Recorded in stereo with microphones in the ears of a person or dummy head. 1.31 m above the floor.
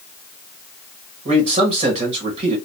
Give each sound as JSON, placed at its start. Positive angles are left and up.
{"t": 1.2, "sound": "a man speaking", "side_deg": -35, "distance_m": 1.4}